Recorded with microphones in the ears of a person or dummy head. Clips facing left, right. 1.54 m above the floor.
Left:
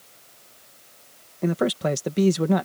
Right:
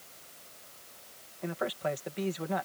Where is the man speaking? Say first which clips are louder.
Left 10 dB; 60° left (ahead or behind).